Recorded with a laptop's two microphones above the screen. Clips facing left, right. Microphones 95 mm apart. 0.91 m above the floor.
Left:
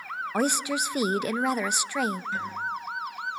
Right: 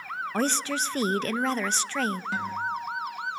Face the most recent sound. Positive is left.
turn(degrees=-80)